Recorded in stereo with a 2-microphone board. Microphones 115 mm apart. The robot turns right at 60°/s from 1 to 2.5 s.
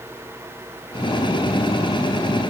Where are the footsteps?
I don't hear footsteps.